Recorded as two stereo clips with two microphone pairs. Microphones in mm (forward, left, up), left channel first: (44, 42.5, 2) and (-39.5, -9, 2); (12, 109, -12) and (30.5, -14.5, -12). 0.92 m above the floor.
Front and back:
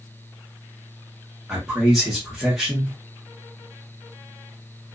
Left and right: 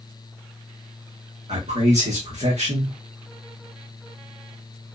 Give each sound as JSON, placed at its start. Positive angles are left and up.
{"t": 1.5, "sound": "a man speaking", "azimuth_deg": -60, "distance_m": 1.9}